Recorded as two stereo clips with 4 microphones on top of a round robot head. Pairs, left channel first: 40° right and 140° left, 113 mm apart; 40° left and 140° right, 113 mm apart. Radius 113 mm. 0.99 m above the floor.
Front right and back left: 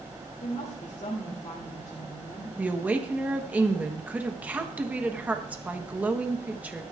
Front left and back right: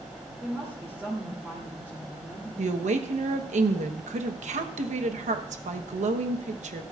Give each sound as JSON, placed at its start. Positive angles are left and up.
{"t": 0.4, "sound": "a woman speaking", "azimuth_deg": -70, "distance_m": 3.0}
{"t": 2.6, "sound": "a woman speaking", "azimuth_deg": -145, "distance_m": 1.1}